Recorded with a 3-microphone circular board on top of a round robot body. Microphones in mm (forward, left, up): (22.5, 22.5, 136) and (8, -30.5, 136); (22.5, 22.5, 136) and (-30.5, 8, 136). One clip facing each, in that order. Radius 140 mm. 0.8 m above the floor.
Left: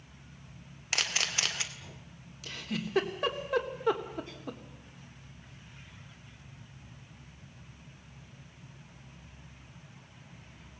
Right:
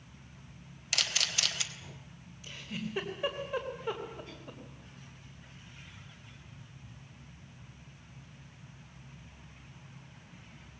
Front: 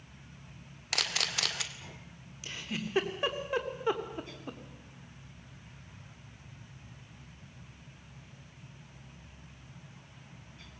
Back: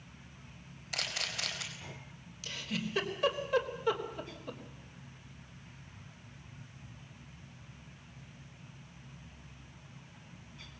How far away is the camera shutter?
About 2.5 m.